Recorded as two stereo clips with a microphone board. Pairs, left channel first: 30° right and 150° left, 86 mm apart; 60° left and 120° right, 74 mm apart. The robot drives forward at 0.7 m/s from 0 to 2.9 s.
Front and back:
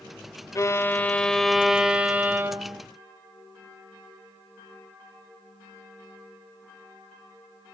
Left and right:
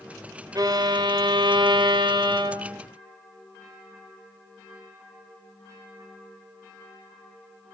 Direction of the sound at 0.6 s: 85° right.